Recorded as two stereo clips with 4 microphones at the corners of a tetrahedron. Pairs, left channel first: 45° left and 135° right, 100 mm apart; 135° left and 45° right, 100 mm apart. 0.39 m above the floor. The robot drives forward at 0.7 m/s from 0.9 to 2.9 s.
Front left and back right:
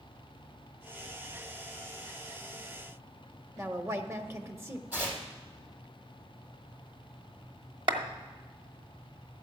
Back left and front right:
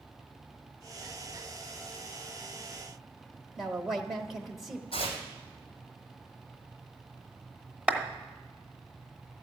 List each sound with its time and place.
3.6 s a woman speaking: 135° right, 0.9 m
4.9 s tearing paper: 150° left, 3 m
7.9 s a clap: 120° right, 1.0 m